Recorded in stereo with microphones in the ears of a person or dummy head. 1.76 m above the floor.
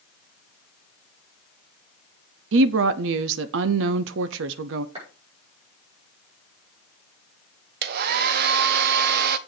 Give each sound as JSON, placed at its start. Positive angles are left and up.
{"t": 2.5, "sound": "a woman speaking", "side_deg": -65, "distance_m": 0.7}
{"t": 5.0, "sound": "a clap", "side_deg": -30, "distance_m": 5.5}
{"t": 7.8, "sound": "a hair dryer", "side_deg": -55, "distance_m": 0.8}